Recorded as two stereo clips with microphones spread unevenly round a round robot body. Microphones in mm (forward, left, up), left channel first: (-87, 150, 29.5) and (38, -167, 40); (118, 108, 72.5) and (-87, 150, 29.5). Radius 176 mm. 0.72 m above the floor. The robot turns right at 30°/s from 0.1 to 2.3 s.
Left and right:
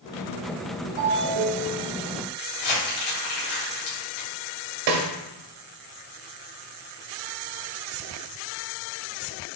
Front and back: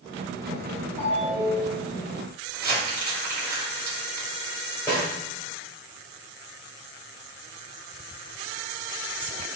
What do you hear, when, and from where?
1.0 s a ringtone: 85° right, 1.7 m; by 1.9 s 60° right, 1.7 m
2.5 s crumpling: 125° left, 1.9 m
4.9 s a snare drum: 90° right, 0.8 m